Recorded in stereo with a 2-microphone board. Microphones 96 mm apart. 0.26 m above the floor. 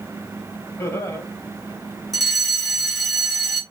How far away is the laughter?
About 1.5 m.